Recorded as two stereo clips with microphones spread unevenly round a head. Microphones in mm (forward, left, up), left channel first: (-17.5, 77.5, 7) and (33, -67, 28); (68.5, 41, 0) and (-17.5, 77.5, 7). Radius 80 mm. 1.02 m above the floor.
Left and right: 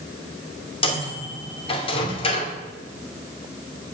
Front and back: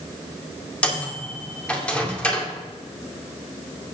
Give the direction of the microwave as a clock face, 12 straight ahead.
10 o'clock.